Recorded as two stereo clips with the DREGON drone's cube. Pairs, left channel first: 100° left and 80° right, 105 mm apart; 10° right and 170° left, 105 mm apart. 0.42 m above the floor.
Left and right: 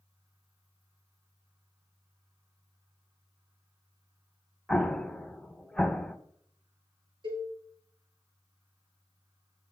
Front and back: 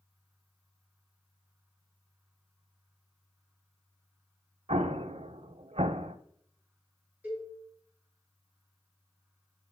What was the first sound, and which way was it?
An explosion, 175° right.